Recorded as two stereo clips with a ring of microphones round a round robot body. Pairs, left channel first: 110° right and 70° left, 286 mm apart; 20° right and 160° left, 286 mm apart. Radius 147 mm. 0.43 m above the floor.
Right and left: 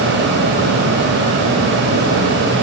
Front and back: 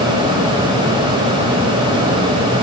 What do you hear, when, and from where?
Only background noise.